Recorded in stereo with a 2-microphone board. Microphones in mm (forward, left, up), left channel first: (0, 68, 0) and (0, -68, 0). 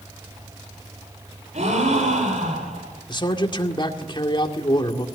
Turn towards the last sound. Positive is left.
turn(degrees=35)  # may be behind; listen again after turning